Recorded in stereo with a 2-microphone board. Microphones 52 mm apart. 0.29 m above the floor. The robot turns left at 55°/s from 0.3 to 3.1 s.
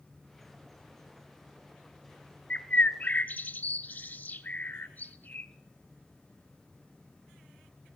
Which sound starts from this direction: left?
A bird, at 2.5 s.